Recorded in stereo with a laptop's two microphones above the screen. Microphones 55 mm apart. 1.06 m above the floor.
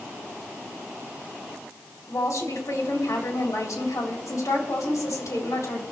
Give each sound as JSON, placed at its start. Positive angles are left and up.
{"t": 2.1, "sound": "a woman speaking", "side_deg": 70, "distance_m": 3.5}